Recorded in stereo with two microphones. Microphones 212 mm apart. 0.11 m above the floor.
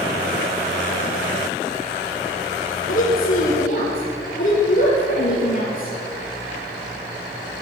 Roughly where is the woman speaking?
Left.